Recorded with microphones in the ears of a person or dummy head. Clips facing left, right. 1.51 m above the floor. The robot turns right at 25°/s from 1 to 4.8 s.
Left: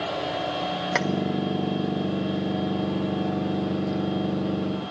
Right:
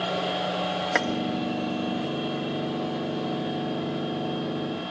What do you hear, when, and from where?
0.9 s keys jangling: 5° right (ahead or behind), 0.6 m